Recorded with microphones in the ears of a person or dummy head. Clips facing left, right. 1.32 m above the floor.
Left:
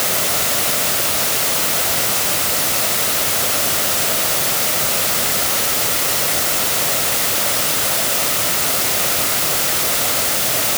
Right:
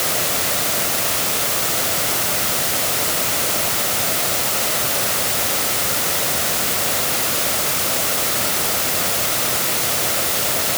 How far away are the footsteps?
I don't hear footsteps.